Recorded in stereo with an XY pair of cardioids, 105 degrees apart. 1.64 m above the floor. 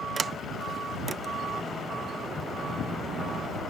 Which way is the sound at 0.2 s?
35° right.